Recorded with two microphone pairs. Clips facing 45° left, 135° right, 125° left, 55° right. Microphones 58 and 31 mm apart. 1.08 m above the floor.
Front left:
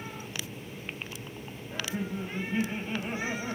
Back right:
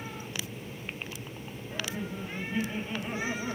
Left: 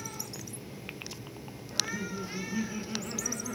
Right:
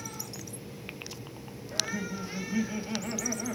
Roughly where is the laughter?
Ahead right.